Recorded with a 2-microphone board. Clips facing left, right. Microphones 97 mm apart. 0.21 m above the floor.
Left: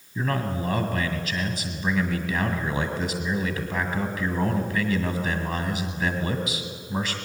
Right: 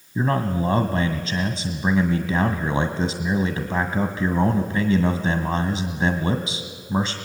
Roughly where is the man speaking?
Right.